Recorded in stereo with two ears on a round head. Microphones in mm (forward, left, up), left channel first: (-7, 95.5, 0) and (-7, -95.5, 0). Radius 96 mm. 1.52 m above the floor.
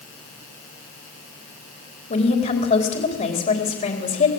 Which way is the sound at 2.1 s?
35° left (ahead or behind).